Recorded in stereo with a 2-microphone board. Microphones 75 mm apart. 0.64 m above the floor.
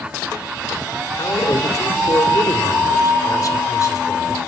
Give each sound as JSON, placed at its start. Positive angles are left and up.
{"t": 1.2, "sound": "a man speaking", "side_deg": 45, "distance_m": 2.0}